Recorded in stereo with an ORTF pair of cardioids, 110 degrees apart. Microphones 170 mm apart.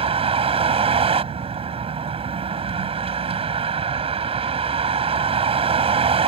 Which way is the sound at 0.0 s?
30° right.